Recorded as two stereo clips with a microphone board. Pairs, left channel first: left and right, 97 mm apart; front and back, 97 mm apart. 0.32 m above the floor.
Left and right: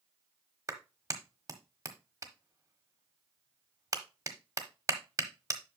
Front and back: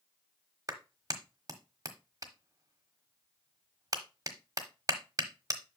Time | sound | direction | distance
0.7 | a clap | 140° right | 1.1 m